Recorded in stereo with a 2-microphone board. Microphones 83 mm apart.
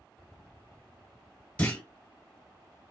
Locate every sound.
1.6 s a clunk: 15° left (ahead or behind), 1.3 m